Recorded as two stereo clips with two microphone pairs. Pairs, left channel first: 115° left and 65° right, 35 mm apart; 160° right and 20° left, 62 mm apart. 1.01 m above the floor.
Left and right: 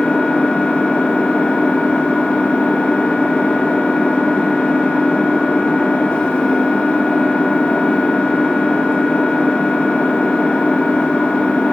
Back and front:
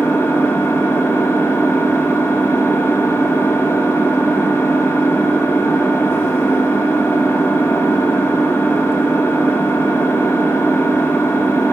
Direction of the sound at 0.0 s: 160° left.